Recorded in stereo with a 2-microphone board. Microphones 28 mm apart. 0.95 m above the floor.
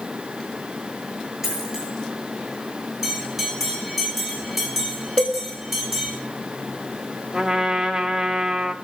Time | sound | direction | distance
1.4 | a dropped coin | 10° right (ahead or behind) | 8.5 m
3.0 | a bell | 5° right (ahead or behind) | 6 m
5.2 | a cowbell | 55° left (ahead or behind) | 2.0 m
7.3 | a trumpet | 20° right (ahead or behind) | 1.7 m